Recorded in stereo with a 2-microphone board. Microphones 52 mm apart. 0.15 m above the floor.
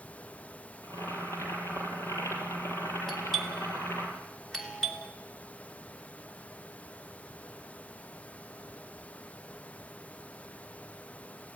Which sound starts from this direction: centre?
A doorbell, at 3.1 s.